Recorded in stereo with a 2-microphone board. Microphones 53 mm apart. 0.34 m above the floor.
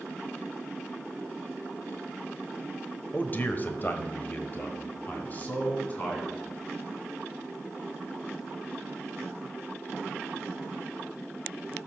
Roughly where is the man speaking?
Left.